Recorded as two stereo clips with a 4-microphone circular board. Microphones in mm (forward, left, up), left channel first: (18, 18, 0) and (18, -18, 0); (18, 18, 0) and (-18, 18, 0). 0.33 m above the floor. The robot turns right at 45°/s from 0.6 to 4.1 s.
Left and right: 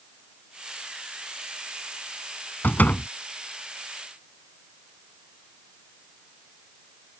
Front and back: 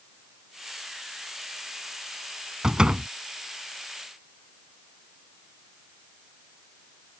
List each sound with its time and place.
2.6 s a door slam: 110° left; by 3.1 s 130° left